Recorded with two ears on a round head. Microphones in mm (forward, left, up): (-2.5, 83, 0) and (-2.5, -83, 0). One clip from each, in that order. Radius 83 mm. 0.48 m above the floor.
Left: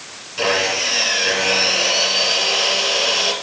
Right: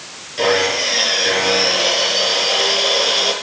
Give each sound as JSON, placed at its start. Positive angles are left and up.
{"t": 0.4, "sound": "sawing", "side_deg": 15, "distance_m": 8.5}